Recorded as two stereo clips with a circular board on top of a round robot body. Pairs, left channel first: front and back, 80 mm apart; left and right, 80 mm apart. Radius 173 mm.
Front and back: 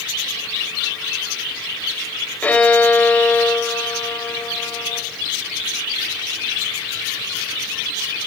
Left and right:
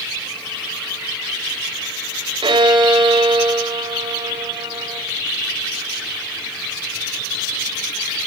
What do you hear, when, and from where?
2.4 s a violin: 75° right, 3.5 m